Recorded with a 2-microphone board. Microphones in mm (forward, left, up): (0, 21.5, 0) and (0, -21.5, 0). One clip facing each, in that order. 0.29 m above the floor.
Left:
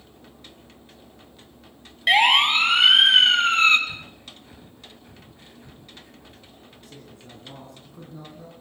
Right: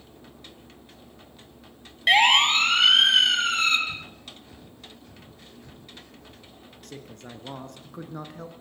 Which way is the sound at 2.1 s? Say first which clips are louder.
Left 1 dB; centre (ahead or behind).